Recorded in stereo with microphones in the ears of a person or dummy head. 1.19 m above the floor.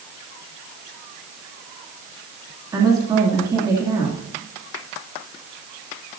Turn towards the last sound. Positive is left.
turn(degrees=-20)  # may be behind; listen again after turning